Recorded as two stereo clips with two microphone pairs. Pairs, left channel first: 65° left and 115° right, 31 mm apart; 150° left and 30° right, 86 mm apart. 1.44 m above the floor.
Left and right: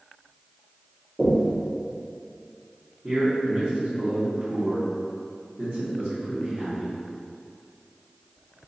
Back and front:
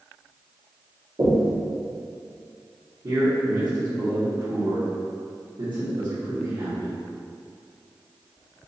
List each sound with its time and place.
1.2 s knocking: 15° right, 1.5 m
3.0 s a man speaking: 60° right, 1.5 m